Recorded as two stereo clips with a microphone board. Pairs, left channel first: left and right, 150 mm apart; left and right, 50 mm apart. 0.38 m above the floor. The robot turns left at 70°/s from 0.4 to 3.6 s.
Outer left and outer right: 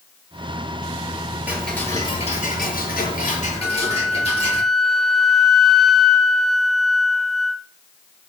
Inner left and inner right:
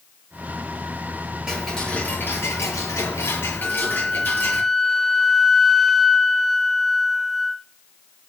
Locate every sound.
1.5 s ticking: 170° right, 7 m; by 4.6 s 40° left, 7 m
3.6 s a flute: centre (ahead or behind), 1.0 m